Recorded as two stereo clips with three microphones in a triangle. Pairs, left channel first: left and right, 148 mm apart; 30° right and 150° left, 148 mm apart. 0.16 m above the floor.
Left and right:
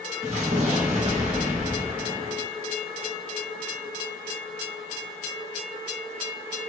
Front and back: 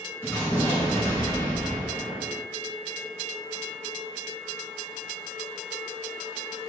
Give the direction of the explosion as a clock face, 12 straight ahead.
3 o'clock.